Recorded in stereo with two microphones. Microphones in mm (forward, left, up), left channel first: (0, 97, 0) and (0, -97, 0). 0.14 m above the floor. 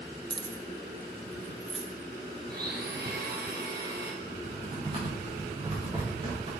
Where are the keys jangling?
25° right (ahead or behind), 0.9 m; by 1.9 s 5° left (ahead or behind), 1.4 m.